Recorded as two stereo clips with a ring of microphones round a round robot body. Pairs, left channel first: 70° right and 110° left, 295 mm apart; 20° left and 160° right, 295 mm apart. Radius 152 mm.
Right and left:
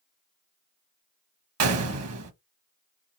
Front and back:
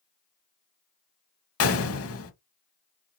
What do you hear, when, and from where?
1.6 s a gunshot: 70° left, 0.9 m